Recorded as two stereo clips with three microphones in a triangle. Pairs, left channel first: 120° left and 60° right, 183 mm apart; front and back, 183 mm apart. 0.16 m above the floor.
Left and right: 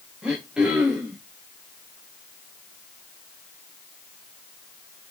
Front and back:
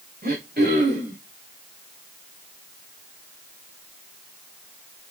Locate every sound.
0.2 s throat clearing: 145° right, 3.5 m